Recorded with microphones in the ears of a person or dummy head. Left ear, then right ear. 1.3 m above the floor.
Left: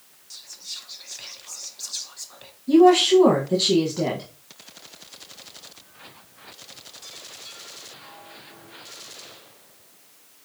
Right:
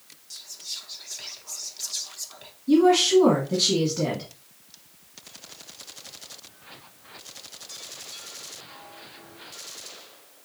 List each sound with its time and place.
0.3 s whispering: 5° left (ahead or behind), 0.6 m
2.7 s a woman speaking: 15° left (ahead or behind), 1.2 m